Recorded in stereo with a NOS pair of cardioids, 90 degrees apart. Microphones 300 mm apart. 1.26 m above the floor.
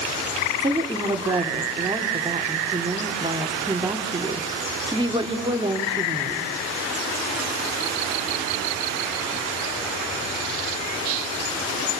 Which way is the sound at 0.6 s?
15° right.